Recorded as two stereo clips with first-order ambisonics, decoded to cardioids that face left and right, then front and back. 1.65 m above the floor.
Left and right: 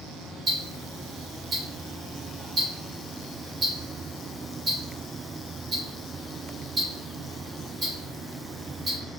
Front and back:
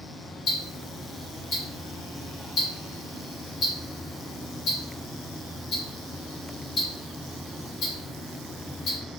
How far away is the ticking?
About 1.1 m.